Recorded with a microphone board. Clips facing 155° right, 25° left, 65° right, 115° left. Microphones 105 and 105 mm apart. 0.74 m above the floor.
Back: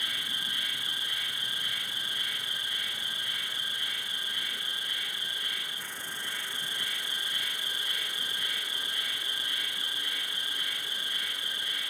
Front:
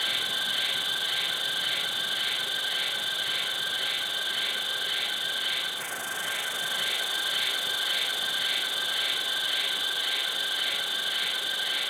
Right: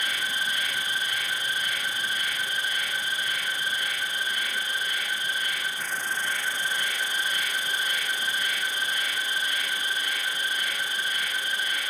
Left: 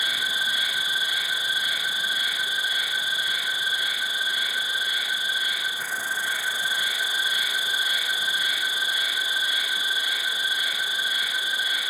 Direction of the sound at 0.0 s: 30° left.